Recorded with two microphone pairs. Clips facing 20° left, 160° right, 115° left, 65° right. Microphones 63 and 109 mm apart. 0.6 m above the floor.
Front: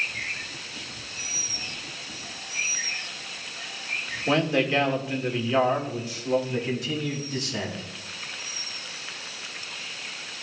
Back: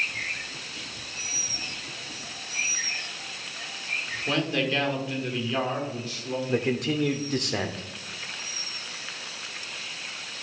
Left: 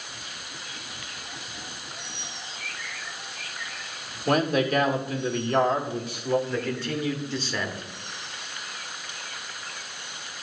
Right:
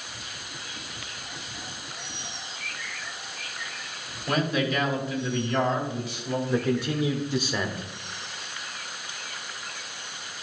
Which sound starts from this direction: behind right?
A man speaking, at 6.5 s.